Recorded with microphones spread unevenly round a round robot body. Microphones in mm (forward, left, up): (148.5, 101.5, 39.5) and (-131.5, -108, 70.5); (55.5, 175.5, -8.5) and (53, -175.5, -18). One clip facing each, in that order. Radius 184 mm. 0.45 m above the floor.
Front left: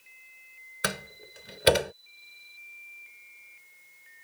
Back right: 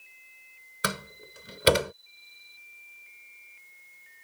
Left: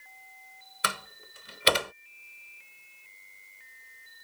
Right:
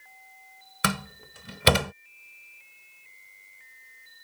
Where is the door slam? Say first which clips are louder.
Back right 1 dB, right 10 dB; 55° right.